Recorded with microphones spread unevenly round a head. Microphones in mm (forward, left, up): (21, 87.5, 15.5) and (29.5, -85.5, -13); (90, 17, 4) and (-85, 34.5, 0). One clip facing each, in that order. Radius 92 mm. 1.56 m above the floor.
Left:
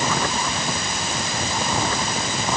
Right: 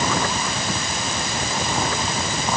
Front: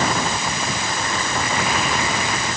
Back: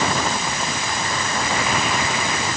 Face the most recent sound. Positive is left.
No sound to turn to.